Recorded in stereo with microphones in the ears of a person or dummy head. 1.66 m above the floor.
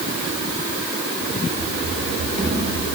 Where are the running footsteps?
50° right (ahead or behind), 4 m; by 2.9 s 40° right (ahead or behind), 4.5 m.